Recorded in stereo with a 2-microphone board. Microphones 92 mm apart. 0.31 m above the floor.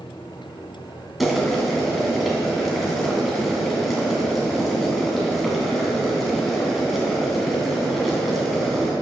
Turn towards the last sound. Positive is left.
turn(degrees=0)  # may be behind; listen again after turning